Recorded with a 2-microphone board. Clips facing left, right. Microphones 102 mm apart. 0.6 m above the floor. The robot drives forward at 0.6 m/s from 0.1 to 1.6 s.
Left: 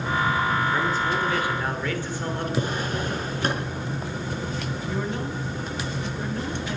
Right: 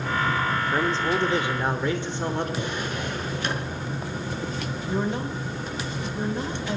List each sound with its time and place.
0.7 s a man speaking: 30° right (ahead or behind), 1.6 m; by 2.5 s 25° right (ahead or behind), 1.9 m
2.6 s a drawer: 40° left (ahead or behind), 3.5 m
4.9 s a woman speaking: 25° right (ahead or behind), 3 m